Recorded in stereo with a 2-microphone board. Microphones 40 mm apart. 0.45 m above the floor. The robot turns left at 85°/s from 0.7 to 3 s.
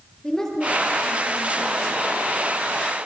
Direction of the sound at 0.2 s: 170° left.